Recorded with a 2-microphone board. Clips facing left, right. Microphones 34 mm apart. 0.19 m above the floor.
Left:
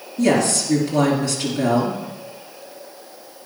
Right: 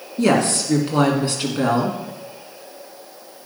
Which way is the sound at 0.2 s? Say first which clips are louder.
Even; 40° right (ahead or behind).